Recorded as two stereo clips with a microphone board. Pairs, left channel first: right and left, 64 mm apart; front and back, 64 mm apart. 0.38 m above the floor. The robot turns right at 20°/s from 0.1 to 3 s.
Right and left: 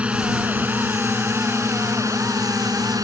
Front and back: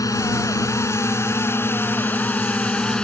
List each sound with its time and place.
0.0 s a drone: 20° left; by 3.0 s 80° left